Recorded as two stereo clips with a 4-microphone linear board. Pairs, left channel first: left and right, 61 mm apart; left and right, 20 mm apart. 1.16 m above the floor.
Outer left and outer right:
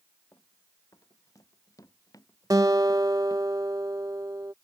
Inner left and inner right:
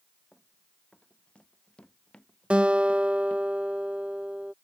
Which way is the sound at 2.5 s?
80° right.